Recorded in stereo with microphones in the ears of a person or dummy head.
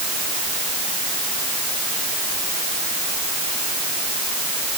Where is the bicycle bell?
I don't hear a bicycle bell.